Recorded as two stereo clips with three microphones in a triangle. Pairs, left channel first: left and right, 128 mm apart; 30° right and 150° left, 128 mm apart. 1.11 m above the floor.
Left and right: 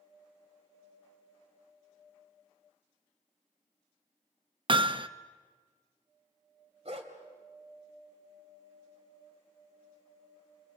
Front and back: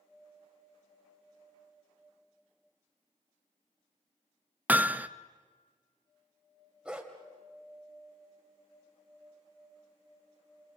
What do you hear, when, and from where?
4.7 s hammering: 135° right, 0.6 m
6.8 s a dog barking: 125° right, 2.5 m